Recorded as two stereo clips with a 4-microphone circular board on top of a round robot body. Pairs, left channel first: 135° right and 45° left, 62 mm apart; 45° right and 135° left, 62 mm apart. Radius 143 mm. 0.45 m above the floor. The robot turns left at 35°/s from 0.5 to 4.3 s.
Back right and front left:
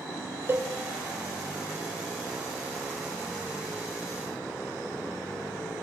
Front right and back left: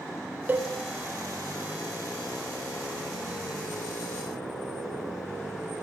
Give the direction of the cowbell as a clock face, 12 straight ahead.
9 o'clock.